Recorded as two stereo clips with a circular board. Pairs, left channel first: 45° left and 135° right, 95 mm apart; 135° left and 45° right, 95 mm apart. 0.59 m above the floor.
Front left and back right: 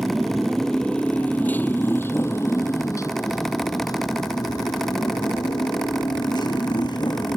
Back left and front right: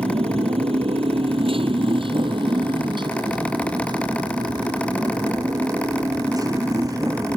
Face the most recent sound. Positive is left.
turn(degrees=5)